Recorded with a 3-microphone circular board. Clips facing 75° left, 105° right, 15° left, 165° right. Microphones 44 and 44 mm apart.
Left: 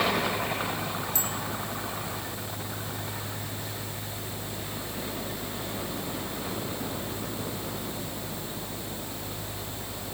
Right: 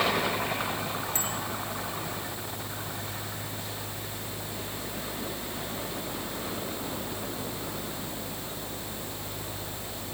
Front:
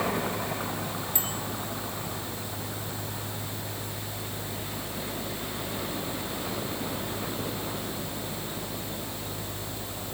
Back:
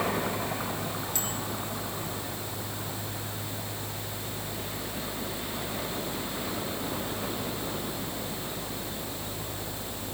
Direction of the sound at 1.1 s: 50° right.